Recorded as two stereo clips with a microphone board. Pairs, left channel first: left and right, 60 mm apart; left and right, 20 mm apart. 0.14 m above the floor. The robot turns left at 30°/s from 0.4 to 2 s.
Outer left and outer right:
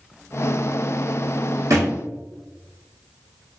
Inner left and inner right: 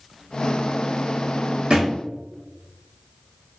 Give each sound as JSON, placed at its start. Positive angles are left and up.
{"t": 1.7, "sound": "a thud", "side_deg": -65, "distance_m": 1.8}